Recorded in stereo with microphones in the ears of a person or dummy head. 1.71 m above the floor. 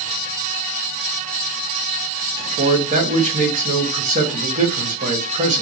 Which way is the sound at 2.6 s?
35° right (ahead or behind).